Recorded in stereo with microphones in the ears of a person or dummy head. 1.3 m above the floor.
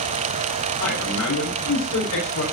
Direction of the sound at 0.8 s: 70° left (ahead or behind).